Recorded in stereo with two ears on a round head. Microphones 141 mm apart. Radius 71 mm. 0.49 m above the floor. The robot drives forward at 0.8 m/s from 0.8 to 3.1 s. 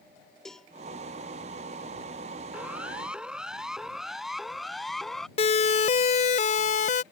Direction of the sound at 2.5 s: 10° right (ahead or behind).